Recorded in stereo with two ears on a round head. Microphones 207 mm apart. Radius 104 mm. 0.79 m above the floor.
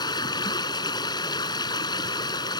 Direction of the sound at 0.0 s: 20° left (ahead or behind).